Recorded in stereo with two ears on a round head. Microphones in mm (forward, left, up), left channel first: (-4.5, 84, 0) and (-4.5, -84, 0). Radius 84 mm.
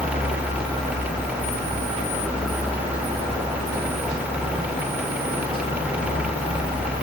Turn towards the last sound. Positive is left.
No sound to turn to.